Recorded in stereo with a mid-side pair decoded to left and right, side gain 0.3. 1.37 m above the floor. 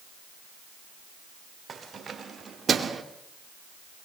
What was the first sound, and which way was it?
Keys jangling, 60° right.